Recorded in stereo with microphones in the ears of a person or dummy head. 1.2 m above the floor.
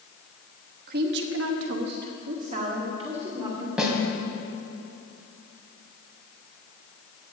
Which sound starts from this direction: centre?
A snare drum, at 3.8 s.